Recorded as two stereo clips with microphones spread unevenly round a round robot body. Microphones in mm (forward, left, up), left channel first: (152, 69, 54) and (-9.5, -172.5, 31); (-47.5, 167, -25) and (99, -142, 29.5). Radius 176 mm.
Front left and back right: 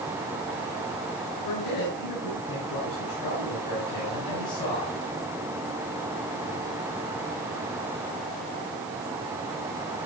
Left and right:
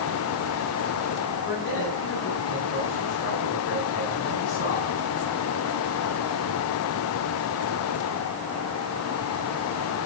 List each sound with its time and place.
1.4 s a man speaking: 60° left, 8 m